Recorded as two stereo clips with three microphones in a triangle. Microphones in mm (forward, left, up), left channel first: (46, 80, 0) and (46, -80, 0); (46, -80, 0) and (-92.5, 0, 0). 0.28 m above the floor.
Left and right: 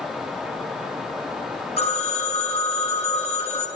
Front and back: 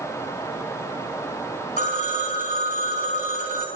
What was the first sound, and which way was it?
A phone ringing, 130° left.